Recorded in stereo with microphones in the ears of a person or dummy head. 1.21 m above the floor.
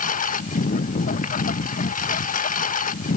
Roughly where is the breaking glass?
I don't hear breaking glass.